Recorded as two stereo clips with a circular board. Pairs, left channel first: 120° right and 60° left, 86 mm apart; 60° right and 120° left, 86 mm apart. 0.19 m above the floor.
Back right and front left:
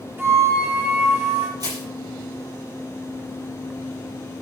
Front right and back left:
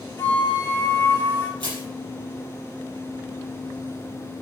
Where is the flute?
Straight ahead, 3 m.